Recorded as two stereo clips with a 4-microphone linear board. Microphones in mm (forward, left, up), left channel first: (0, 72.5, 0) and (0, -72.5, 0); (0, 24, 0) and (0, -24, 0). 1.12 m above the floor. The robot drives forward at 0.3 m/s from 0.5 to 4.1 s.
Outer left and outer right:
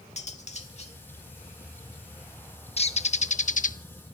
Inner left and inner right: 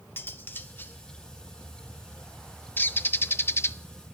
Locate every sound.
0.2 s cutlery clinking: 50° left (ahead or behind), 1.7 m; by 1.0 s 45° left (ahead or behind), 1.8 m
2.8 s a bird: 45° left (ahead or behind), 0.8 m; by 3.8 s 65° left (ahead or behind), 0.6 m